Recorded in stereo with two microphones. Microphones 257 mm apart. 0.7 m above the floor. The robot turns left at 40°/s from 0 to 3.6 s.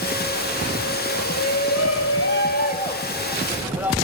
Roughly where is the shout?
Left.